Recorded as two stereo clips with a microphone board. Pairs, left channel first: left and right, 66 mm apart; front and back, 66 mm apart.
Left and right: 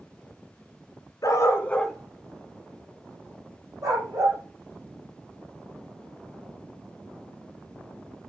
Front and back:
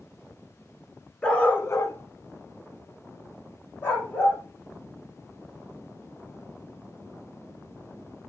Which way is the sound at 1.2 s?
70° left.